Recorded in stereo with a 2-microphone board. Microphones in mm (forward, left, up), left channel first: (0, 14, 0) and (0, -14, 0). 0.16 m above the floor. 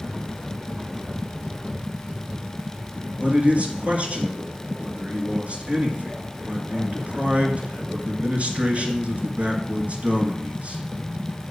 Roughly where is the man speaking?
Right.